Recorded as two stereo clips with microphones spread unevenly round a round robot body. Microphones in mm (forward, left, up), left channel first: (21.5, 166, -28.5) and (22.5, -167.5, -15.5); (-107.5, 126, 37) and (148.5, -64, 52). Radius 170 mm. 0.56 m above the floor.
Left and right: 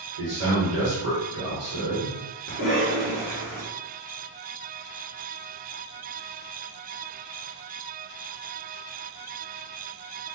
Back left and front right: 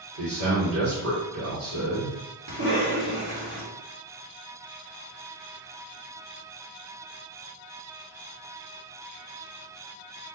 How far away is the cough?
About 1.6 m.